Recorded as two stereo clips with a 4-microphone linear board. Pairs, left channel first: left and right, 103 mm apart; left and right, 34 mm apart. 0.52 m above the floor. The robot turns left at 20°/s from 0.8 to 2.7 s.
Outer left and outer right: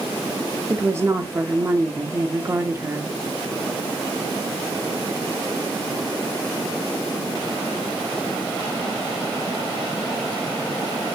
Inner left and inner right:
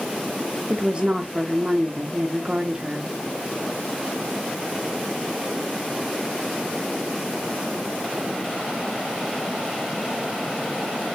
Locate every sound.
0.7 s a woman speaking: 25° right (ahead or behind), 0.8 m